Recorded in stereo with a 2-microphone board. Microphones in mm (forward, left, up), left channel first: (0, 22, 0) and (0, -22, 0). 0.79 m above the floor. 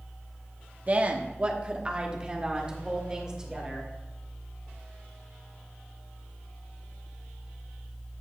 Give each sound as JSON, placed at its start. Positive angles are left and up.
{"t": 0.9, "sound": "a woman speaking", "side_deg": -35, "distance_m": 0.9}